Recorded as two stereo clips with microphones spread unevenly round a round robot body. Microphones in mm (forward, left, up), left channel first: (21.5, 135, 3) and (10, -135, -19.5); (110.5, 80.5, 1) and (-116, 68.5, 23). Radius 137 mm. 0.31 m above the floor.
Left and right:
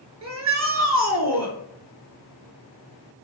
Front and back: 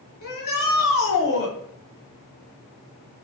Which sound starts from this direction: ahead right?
A shout, at 0.2 s.